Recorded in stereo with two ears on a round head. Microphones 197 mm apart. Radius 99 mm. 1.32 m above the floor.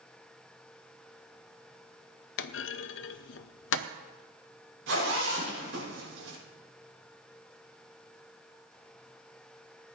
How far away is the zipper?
About 7.5 m.